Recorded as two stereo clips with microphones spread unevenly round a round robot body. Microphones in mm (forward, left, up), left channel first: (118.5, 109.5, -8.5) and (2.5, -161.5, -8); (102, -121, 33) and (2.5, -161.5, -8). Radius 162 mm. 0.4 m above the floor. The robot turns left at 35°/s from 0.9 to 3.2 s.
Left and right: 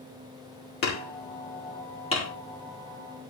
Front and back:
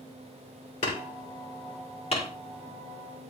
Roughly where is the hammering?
Ahead left.